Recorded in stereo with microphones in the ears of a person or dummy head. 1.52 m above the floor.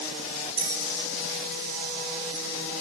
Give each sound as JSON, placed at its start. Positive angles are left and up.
{"t": 0.6, "sound": "a bell", "side_deg": -55, "distance_m": 3.0}